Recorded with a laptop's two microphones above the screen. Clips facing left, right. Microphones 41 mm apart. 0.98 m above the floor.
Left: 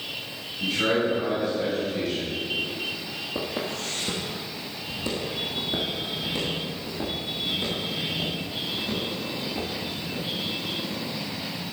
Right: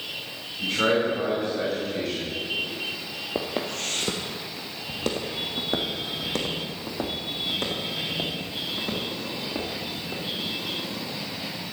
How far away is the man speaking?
About 5 m.